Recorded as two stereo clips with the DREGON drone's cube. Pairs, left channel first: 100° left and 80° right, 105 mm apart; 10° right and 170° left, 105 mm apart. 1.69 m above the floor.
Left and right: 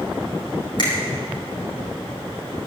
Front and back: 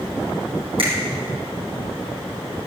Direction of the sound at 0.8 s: 140° left.